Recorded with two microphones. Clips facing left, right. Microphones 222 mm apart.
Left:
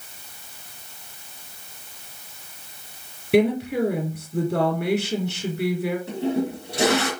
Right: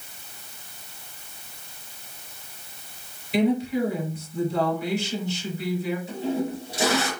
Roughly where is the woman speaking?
Left.